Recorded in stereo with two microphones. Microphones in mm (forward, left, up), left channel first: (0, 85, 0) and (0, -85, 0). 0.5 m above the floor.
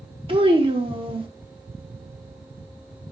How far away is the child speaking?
About 0.7 m.